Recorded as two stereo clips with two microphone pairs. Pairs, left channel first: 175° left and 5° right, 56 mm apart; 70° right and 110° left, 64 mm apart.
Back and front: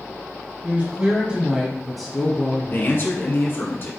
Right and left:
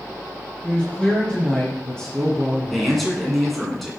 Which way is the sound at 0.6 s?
10° right.